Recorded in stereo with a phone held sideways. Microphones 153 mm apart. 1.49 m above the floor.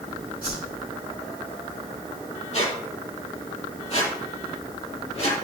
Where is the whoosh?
75° left (ahead or behind), 5.5 m.